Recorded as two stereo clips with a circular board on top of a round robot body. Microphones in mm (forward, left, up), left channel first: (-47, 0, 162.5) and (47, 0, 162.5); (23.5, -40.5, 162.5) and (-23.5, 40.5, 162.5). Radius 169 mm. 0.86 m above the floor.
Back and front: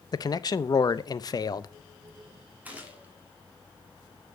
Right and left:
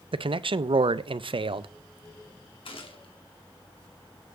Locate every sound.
0.1 s a man speaking: 135° left, 0.7 m
2.6 s a gunshot: 75° right, 2.5 m